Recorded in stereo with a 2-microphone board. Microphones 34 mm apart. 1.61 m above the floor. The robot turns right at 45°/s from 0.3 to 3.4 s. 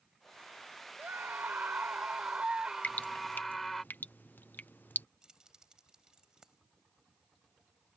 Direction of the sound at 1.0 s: 100° right.